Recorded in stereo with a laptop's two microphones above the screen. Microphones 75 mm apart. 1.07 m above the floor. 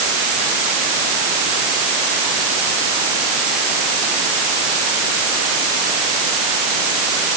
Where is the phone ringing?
I don't hear a phone ringing.